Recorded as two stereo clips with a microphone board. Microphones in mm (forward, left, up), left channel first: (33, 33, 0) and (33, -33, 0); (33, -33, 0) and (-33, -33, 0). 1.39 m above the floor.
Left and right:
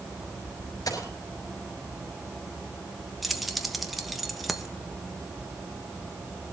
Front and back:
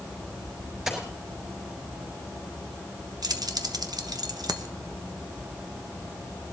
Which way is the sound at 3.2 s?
Straight behind.